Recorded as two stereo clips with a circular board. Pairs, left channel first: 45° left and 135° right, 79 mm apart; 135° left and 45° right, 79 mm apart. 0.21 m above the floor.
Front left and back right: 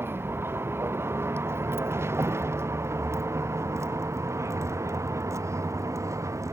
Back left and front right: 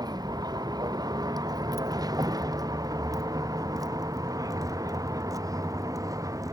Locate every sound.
0.0 s a vehicle: 75° right; by 6.5 s 85° right